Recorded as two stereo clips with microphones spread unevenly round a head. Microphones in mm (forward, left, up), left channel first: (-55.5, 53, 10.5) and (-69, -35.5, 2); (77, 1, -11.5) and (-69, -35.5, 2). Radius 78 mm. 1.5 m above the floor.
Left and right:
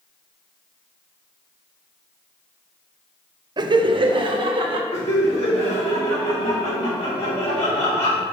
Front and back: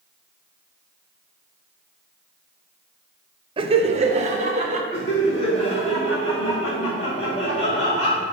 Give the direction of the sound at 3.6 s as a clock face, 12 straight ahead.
4 o'clock.